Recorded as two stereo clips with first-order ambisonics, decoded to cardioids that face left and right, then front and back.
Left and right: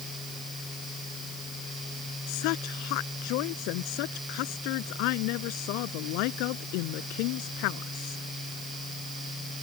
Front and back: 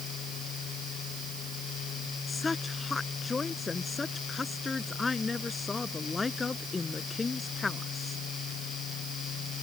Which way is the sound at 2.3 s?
75° left.